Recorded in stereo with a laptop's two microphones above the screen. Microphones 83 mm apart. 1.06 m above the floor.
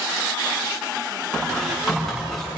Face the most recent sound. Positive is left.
turn(degrees=5)  # may be behind; listen again after turning